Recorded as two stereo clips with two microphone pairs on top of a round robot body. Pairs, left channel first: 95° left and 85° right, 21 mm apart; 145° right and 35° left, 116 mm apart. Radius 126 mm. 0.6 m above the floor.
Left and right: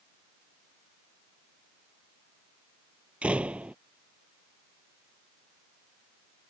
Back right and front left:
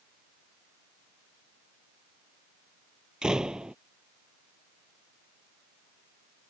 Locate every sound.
3.2 s a door slam: 50° right